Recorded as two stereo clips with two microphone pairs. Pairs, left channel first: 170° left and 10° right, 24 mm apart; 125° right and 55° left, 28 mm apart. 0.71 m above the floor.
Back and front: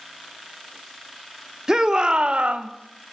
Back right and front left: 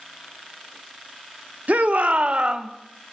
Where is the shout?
50° left, 1.1 m; by 2.7 s 5° right, 1.0 m.